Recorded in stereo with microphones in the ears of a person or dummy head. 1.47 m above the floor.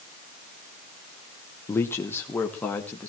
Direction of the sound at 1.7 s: 15° left (ahead or behind).